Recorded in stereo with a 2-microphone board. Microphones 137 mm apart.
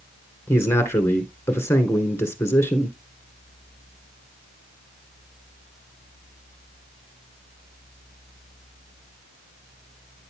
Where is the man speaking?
20° left (ahead or behind), 1.7 m.